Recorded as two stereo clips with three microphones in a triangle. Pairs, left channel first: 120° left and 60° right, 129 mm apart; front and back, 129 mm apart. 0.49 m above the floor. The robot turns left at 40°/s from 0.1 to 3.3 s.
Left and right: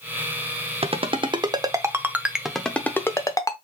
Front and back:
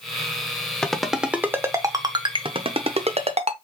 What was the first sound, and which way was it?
A ringtone, 85° right.